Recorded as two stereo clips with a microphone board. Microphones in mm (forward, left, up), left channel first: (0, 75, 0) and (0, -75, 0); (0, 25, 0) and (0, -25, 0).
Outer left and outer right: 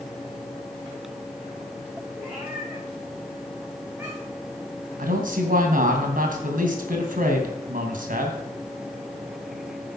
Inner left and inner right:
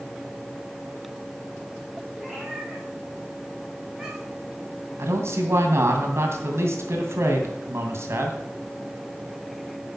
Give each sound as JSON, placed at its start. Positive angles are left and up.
{"t": 2.2, "sound": "a cat meowing", "side_deg": -5, "distance_m": 7.5}
{"t": 5.0, "sound": "a man speaking", "side_deg": -65, "distance_m": 2.5}